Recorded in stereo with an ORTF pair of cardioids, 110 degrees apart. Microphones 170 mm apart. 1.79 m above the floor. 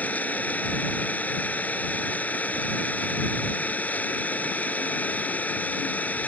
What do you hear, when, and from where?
0.0 s an engine running: 10° left